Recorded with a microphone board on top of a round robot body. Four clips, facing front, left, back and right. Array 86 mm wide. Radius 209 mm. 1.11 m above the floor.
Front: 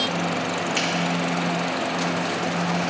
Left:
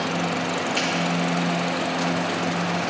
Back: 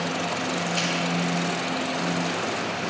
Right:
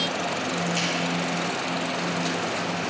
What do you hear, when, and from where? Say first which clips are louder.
0.8 s a finger snap: left 3 dB, front 2 dB; 10° left, 2.5 m